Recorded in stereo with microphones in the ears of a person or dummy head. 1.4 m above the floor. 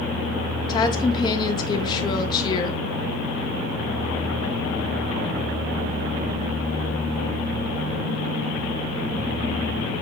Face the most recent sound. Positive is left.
turn(degrees=25)  # may be behind; listen again after turning